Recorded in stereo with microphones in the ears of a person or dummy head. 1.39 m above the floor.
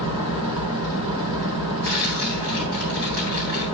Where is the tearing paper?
65° right (ahead or behind), 7.5 m.